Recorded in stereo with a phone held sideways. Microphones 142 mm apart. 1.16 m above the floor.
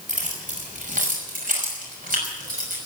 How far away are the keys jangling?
About 5.5 m.